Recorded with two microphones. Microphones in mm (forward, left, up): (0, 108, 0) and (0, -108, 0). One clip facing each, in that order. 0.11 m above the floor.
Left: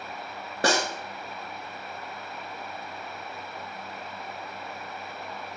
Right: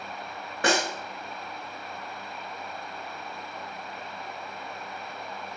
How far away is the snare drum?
About 0.6 m.